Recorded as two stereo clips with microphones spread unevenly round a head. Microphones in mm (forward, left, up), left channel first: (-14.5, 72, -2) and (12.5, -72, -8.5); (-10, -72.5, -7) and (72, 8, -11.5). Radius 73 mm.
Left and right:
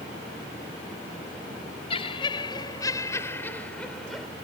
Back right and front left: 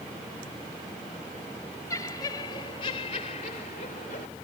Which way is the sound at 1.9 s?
155° left.